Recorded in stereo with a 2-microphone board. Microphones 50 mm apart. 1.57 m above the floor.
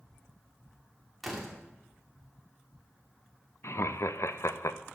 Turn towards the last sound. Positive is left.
turn(degrees=65)  # may be behind; listen again after turning